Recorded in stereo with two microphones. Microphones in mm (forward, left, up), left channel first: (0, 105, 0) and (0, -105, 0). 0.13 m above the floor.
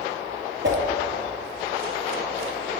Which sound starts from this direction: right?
A whoosh, at 0.6 s.